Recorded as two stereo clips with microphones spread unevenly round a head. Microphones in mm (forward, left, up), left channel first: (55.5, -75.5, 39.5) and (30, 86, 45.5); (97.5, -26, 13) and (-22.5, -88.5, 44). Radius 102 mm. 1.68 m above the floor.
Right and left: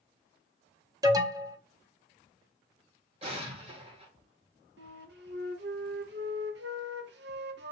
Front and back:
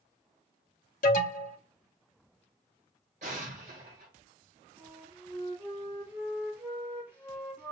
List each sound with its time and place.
1.0 s an alarm: 40° left, 0.9 m
3.2 s an explosion: 160° left, 1.4 m
4.8 s a flute: 130° left, 0.8 m